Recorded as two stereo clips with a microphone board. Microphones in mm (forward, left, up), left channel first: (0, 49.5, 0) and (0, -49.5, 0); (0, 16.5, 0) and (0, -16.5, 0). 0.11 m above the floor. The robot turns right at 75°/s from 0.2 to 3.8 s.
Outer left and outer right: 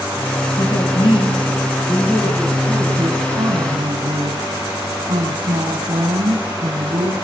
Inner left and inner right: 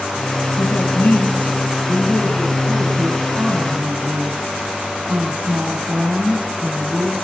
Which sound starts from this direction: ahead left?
A woman speaking, at 0.6 s.